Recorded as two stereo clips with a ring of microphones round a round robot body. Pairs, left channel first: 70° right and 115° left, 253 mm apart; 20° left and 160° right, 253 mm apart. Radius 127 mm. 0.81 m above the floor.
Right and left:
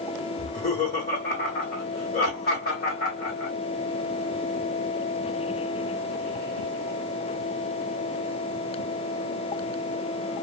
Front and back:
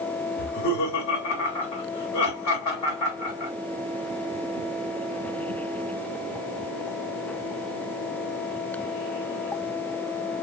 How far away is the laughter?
About 2 m.